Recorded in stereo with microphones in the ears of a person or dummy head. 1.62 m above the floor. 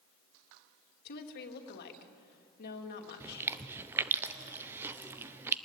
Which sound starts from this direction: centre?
Chewing, at 3.2 s.